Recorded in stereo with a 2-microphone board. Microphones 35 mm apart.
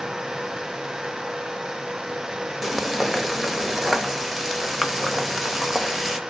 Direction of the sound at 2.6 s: 5° right (ahead or behind).